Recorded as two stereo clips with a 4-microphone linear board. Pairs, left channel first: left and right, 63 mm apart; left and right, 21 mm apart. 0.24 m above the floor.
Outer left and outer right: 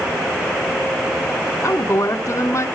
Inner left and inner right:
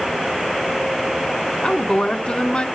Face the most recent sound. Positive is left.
turn(degrees=55)  # may be behind; listen again after turning